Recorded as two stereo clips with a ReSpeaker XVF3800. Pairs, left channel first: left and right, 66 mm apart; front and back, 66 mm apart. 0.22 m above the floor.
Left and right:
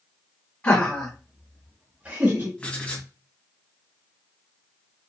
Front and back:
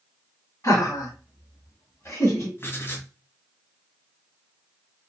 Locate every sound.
0.6 s laughter: 30° left, 2.0 m; by 2.5 s 55° right, 1.8 m
2.6 s writing: 25° left, 1.5 m